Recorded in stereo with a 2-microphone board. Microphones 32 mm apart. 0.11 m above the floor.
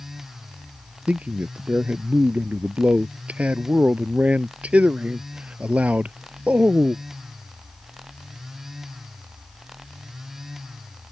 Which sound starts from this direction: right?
A man speaking, at 1.1 s.